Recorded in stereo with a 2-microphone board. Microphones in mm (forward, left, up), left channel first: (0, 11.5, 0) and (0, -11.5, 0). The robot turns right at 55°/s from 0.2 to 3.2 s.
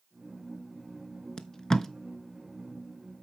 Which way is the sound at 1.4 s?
35° left (ahead or behind).